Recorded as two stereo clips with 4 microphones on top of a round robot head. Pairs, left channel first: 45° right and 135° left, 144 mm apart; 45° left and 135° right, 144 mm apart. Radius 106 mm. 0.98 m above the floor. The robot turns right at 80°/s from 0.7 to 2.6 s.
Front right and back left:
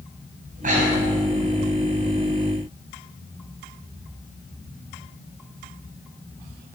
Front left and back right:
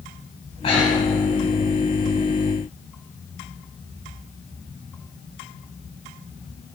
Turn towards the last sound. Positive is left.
turn(degrees=-105)